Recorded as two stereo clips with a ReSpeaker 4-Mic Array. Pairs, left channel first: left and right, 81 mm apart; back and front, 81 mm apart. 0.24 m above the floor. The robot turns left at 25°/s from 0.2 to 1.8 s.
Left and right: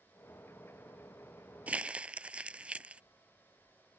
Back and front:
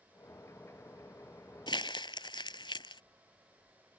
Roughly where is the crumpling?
Behind.